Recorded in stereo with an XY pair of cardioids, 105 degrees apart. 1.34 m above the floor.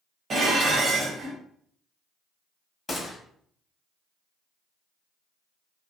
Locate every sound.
0.3 s dishes clattering: 50° right, 1.1 m
2.9 s a gunshot: 20° left, 1.1 m